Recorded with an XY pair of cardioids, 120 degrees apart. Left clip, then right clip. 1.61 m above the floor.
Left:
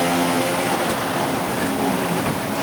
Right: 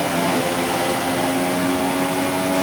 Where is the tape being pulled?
I don't hear tape being pulled.